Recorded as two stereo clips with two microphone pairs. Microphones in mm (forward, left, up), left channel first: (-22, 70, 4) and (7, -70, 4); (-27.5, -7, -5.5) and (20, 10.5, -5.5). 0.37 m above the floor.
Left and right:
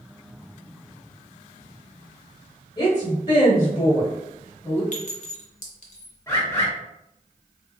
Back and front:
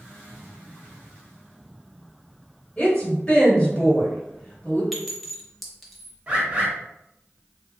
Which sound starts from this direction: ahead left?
A bird, at 6.3 s.